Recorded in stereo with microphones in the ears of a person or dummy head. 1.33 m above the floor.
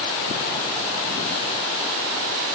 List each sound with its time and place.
Only background noise.